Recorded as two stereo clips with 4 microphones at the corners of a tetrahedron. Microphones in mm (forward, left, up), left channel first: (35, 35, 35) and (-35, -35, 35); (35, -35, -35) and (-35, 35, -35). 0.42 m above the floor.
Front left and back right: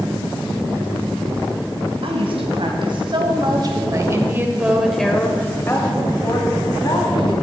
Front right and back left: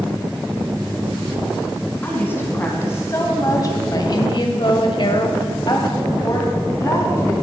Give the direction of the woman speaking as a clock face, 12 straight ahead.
4 o'clock.